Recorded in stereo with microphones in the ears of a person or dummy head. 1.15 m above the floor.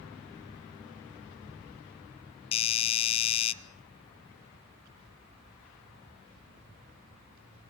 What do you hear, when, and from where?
2.5 s a doorbell: 30° left (ahead or behind), 0.9 m